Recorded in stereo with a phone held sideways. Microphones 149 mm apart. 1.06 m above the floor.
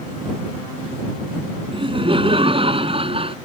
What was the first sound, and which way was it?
Laughter, 35° right (ahead or behind).